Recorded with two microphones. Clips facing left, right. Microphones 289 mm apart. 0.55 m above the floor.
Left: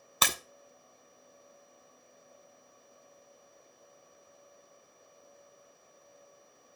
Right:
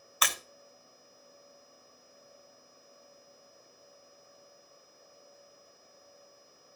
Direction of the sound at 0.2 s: 50° left (ahead or behind).